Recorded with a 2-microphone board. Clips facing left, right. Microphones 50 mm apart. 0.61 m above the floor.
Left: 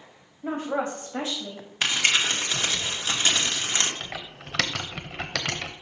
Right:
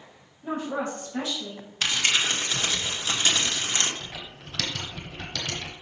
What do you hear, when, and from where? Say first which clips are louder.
0.4 s a woman speaking: left 2 dB; 40° left (ahead or behind), 3.5 m; by 1.7 s 25° left (ahead or behind), 3.5 m
1.8 s crumpling: left 1 dB; 25° left (ahead or behind), 1.6 m
4.0 s typing on a keyboard: left 3 dB; 85° left, 1.0 m